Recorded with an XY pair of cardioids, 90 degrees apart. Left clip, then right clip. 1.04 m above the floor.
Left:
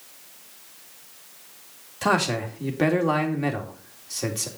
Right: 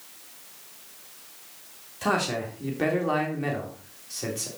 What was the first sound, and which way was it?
A man speaking, 35° left.